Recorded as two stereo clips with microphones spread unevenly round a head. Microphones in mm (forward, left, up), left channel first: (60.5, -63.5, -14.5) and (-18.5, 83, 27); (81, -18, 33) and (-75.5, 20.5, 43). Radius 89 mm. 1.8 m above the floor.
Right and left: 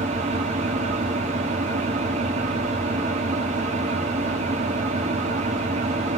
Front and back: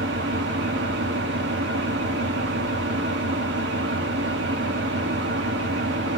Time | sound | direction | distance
0.0 | an engine running | 160° left | 0.9 m